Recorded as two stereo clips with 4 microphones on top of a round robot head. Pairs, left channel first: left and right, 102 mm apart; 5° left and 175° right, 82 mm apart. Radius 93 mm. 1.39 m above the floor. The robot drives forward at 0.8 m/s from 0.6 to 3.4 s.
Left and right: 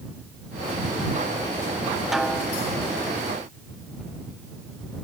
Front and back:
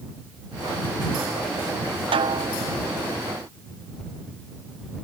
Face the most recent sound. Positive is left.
turn(degrees=180)